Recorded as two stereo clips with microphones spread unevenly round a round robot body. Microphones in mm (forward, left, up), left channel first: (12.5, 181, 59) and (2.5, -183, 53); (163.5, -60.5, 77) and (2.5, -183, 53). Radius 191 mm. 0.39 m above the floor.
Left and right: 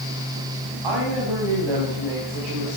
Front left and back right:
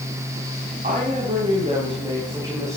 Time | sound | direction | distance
0.8 | a woman speaking | 95° right | 3.5 m